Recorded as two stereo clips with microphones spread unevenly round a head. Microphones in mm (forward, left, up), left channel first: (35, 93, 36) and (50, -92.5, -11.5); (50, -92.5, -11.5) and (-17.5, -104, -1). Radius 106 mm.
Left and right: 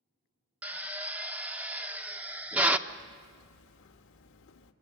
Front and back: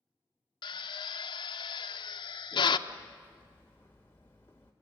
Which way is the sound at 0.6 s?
Straight ahead.